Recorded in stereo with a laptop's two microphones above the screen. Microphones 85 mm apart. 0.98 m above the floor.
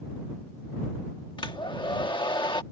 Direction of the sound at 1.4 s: 70° left (ahead or behind).